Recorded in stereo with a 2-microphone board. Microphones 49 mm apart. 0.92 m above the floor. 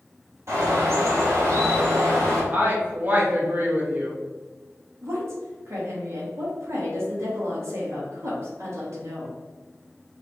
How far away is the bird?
About 2 m.